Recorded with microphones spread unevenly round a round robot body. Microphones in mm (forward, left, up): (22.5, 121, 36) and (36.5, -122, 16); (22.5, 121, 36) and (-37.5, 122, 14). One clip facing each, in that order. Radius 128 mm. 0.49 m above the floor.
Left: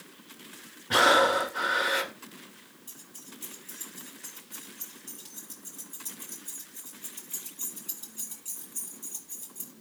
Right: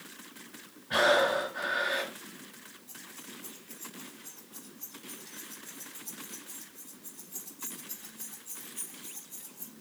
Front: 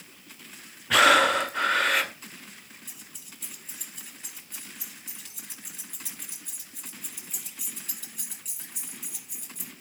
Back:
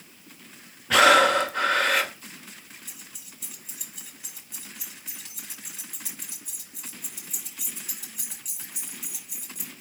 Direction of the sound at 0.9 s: 100° left.